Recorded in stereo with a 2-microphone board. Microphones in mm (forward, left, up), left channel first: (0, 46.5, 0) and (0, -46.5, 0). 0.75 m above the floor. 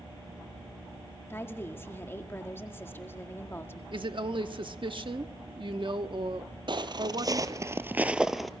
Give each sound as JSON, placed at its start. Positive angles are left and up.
{"t": 1.3, "sound": "a woman speaking", "side_deg": 25, "distance_m": 1.7}
{"t": 3.9, "sound": "a woman speaking", "side_deg": -60, "distance_m": 1.2}
{"t": 6.7, "sound": "footsteps", "side_deg": -55, "distance_m": 1.2}